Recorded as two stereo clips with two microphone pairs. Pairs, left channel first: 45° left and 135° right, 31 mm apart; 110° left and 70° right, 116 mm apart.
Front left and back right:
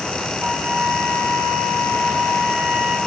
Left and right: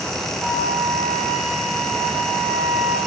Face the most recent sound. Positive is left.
turn(degrees=-150)